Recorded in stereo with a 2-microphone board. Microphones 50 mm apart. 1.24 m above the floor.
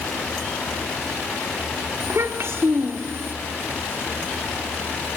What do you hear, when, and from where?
2.0 s a child speaking: 60° right (ahead or behind), 1.7 m